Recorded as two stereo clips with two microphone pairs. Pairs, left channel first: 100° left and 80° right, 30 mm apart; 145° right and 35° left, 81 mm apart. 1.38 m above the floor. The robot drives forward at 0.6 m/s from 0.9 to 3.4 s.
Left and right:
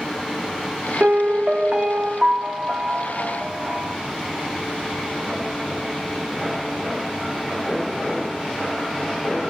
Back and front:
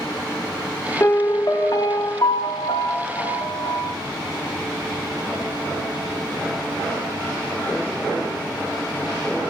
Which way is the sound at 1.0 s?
95° right.